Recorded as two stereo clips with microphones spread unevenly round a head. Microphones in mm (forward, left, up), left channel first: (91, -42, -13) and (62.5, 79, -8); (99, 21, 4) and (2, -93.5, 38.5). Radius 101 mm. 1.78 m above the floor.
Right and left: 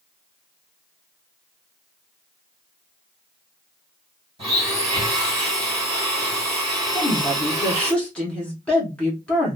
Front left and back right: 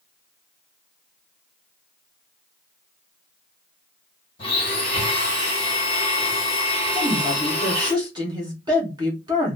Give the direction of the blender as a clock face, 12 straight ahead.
8 o'clock.